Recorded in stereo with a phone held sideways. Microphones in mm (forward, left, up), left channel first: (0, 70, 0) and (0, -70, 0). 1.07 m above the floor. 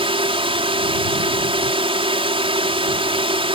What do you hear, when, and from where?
0.0 s a drone: 40° right (ahead or behind)